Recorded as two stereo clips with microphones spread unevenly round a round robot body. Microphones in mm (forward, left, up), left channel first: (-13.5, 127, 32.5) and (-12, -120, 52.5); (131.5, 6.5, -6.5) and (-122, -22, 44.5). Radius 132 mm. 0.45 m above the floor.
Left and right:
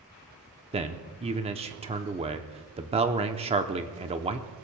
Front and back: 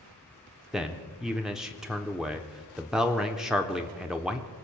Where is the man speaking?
60° right, 1.0 m.